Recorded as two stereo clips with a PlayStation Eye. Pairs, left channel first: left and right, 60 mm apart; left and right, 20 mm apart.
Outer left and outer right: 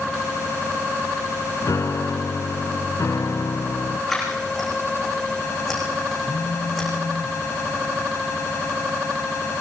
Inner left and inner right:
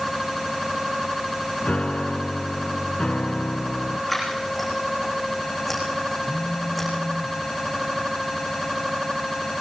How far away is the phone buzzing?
About 3.5 m.